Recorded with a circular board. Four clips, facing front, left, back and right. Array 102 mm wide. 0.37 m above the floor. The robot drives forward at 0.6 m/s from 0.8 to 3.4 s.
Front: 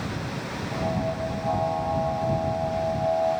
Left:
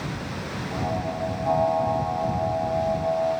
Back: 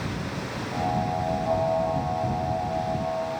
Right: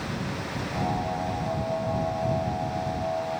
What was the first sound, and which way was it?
Only background noise.